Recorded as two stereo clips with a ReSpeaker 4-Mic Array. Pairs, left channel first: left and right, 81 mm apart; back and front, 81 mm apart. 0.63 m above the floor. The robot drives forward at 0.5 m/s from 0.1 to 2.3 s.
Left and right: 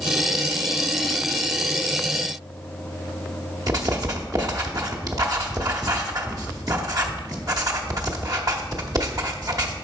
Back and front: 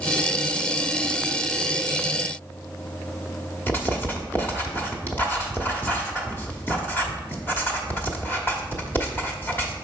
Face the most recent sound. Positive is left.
turn(degrees=-120)